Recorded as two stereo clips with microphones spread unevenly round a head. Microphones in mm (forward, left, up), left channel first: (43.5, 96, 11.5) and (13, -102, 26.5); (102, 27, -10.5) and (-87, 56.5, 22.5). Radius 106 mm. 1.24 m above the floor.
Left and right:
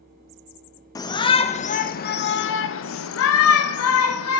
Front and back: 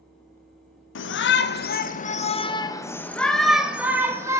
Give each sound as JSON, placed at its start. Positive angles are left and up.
{"t": 0.9, "sound": "a shout", "azimuth_deg": 10, "distance_m": 1.4}